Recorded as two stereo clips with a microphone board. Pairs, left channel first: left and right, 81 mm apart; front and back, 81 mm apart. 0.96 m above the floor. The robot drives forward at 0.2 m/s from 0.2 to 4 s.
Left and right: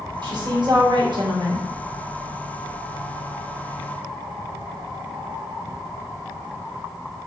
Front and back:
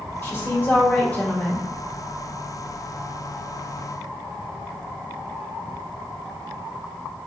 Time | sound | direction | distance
0.2 | a woman speaking | 60° right | 1.0 m